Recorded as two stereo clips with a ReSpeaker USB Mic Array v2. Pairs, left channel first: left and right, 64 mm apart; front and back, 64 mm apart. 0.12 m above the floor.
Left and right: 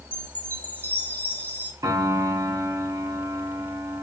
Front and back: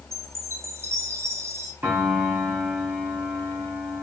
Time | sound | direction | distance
0.1 | a chime | 145° left | 2.5 m
1.8 | a piano | 120° right | 4 m